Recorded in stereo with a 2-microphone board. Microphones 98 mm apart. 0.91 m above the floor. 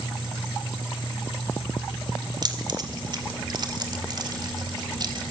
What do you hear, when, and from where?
2.4 s keys jangling: 45° right (ahead or behind), 2 m